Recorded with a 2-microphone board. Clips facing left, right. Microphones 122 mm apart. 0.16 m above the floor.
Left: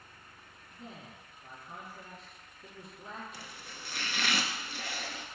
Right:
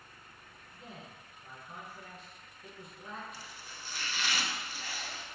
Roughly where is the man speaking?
Left.